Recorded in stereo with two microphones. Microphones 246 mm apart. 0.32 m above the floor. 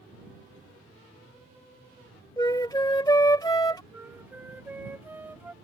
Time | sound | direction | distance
2.4 | a flute | 15° left (ahead or behind) | ?
3.9 | a flute | 10° right (ahead or behind) | ?